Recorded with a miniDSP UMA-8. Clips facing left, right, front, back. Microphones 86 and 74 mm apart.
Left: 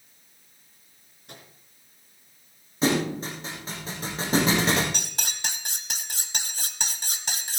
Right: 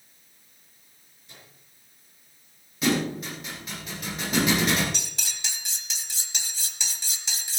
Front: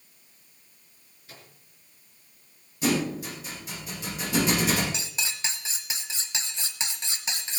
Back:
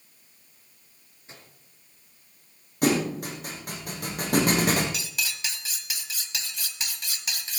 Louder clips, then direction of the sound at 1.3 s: Left 5 dB, even; 120° left.